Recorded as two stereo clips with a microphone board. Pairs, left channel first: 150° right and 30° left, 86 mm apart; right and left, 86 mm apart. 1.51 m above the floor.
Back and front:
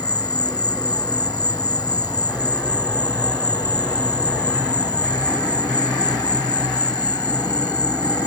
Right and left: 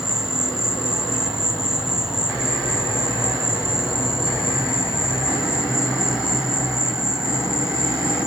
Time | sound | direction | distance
0.0 | an insect | 175° left | ?